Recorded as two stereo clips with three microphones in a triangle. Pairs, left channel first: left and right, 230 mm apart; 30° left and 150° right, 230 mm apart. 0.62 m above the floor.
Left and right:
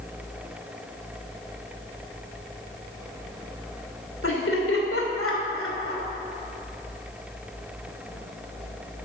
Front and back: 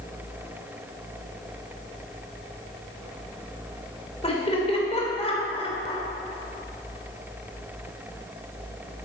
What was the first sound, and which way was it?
Laughter, 90° left.